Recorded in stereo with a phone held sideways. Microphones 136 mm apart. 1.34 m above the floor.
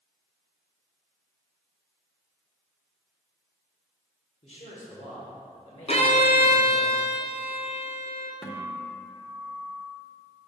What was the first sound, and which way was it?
A man speaking, 55° left (ahead or behind).